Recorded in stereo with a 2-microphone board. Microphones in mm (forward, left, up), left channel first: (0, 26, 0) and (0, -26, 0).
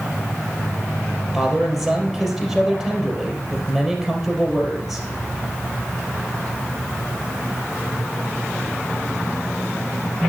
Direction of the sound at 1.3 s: Centre (ahead or behind).